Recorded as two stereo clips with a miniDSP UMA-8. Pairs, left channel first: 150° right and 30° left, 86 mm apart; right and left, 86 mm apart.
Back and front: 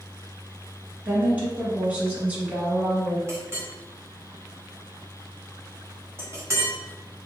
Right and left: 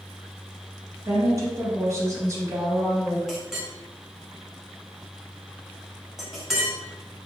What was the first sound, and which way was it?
A woman speaking, 90° left.